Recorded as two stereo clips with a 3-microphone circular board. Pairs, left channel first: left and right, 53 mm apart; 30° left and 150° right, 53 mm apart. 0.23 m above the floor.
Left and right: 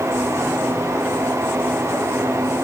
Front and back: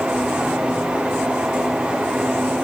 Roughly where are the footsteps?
I don't hear footsteps.